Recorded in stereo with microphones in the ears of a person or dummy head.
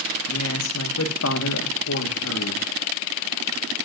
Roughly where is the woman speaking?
Left.